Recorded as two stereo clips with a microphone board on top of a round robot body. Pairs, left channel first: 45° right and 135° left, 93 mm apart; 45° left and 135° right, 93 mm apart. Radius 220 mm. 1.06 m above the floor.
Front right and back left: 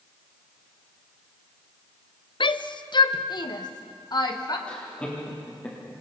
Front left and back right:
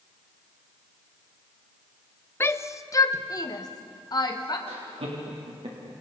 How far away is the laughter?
About 3.5 m.